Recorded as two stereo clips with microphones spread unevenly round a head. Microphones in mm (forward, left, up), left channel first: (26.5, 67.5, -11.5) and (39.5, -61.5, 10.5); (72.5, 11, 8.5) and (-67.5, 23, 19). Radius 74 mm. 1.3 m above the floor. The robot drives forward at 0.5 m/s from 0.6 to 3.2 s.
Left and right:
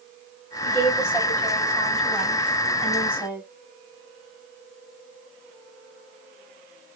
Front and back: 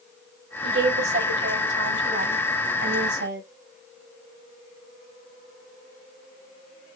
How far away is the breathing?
No breathing in this recording.